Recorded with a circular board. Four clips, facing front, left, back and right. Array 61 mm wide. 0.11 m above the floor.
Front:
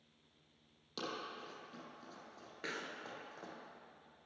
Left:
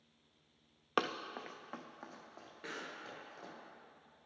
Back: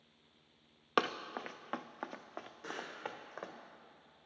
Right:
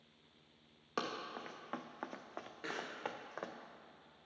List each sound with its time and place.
1.0 s running footsteps: 155° left, 0.7 m; by 3.5 s 120° right, 1.5 m
2.6 s a pop: 15° right, 1.5 m